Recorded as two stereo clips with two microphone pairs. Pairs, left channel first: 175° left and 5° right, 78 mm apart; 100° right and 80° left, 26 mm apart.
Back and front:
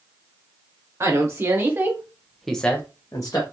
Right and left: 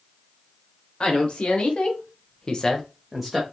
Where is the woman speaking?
55° right, 1.2 m; by 3.4 s 155° left, 0.7 m.